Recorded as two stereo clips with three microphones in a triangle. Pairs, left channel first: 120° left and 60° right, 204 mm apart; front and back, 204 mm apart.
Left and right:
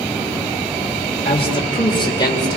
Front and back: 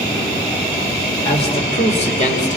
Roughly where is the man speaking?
Ahead left.